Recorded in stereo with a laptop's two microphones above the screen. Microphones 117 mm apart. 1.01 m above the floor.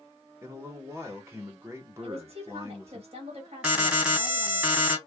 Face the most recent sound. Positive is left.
turn(degrees=-10)  # may be behind; listen again after turning